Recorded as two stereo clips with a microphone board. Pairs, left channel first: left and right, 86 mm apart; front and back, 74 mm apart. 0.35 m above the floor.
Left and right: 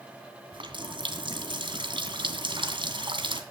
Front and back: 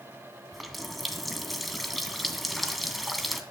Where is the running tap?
90° right, 2.0 m.